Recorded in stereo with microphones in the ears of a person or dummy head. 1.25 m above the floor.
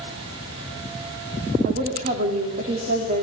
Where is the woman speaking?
40° right (ahead or behind), 3.5 m.